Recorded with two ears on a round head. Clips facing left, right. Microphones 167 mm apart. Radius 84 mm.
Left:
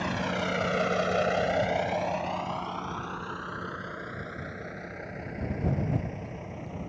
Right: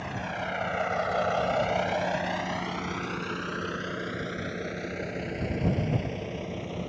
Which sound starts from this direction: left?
A vehicle, at 0.0 s.